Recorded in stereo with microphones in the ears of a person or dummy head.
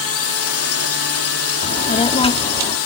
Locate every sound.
0.0 s a drone: 65° left (ahead or behind); by 2.9 s 70° left (ahead or behind)
1.6 s a child speaking: 25° left (ahead or behind)